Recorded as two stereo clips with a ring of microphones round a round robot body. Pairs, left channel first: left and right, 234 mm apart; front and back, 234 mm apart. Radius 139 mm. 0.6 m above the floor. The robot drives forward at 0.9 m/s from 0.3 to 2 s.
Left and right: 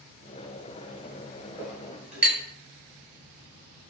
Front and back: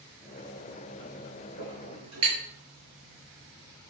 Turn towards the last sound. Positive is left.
turn(degrees=-175)